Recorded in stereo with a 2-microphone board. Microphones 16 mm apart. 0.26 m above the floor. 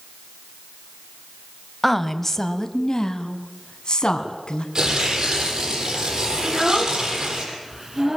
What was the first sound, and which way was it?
A woman speaking, 5° left (ahead or behind).